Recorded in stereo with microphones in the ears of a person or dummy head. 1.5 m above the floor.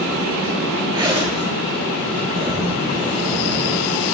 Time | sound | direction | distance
0.9 | a zipper | 20° right (ahead or behind) | 1.5 m